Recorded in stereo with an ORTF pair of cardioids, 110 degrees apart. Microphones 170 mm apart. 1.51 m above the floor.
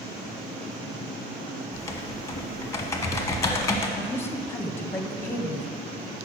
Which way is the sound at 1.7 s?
15° left.